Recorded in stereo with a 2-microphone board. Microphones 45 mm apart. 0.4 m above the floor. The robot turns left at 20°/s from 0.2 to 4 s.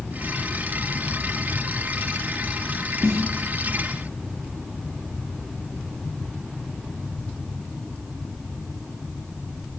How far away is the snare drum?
About 1.6 m.